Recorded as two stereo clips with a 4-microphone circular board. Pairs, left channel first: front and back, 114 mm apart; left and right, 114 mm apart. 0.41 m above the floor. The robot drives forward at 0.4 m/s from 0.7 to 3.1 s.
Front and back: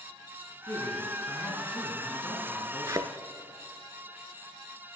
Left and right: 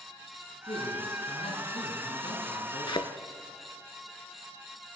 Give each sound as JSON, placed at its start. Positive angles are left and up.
{"t": 0.7, "sound": "a man speaking", "azimuth_deg": 70, "distance_m": 3.0}
{"t": 2.9, "sound": "a thud", "azimuth_deg": 125, "distance_m": 0.6}